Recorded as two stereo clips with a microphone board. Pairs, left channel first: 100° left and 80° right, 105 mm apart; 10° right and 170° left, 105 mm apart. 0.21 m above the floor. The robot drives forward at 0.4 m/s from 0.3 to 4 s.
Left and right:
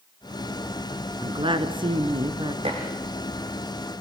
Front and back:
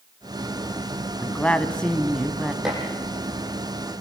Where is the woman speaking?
80° right, 1.9 m; by 2.5 s 100° right, 1.9 m.